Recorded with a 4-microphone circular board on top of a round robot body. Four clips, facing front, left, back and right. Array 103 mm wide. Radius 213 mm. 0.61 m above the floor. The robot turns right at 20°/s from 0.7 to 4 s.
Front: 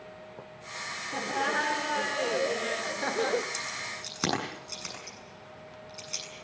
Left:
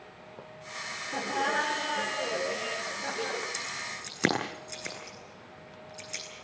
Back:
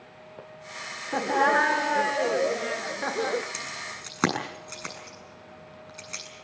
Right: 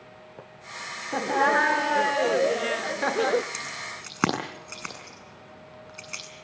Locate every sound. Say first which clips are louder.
1.1 s laughter: right 7 dB, back 8 dB; 140° right, 1.7 m; by 3.4 s 95° right, 1.7 m
3.5 s keys jangling: right 2 dB, even; 135° right, 7.5 m; by 6.2 s 125° right, 7.5 m